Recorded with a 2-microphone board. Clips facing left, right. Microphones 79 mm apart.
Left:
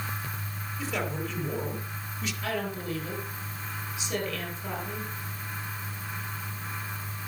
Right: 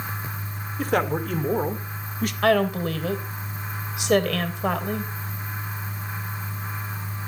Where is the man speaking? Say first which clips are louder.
Right 9 dB; 55° right (ahead or behind), 2.5 m; by 2.3 s 50° right (ahead or behind), 1.9 m.